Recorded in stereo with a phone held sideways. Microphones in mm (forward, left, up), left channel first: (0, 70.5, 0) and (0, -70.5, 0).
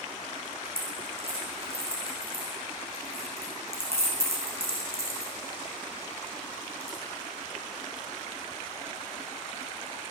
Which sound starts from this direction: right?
A dropped coin, at 0.7 s.